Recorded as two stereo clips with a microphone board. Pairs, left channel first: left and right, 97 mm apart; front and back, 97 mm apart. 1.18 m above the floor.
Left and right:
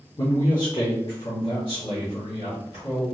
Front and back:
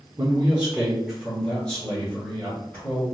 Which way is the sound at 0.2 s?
130° left.